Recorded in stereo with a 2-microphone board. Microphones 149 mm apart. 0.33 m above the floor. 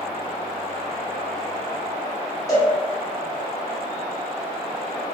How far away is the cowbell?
About 1.1 m.